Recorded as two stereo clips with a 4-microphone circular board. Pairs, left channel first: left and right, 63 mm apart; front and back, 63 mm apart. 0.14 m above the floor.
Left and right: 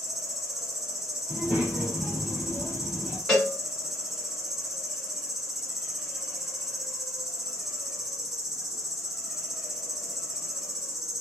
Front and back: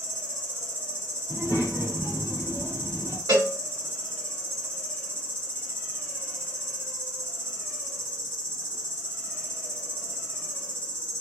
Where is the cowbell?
175° left, 1.9 m.